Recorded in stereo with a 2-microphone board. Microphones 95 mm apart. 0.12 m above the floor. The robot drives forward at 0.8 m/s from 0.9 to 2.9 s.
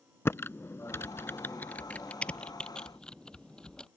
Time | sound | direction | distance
0.2 | typing on a keyboard | 25° left (ahead or behind) | ?